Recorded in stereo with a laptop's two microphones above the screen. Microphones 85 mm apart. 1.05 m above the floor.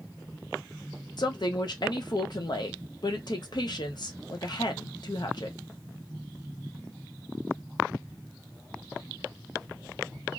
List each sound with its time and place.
1.2 s a woman speaking: 55° left (ahead or behind), 0.7 m